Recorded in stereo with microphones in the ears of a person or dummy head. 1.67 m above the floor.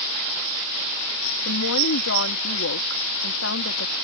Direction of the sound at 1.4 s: 80° left.